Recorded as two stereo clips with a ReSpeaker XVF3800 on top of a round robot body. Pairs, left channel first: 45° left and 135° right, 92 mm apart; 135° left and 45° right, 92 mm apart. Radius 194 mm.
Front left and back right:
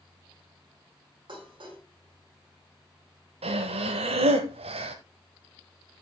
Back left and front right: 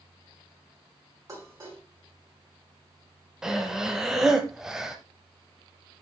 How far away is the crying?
I don't hear crying.